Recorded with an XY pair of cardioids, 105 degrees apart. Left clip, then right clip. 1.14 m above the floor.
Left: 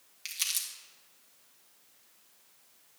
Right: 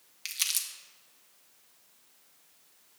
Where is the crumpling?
20° right, 1.5 m.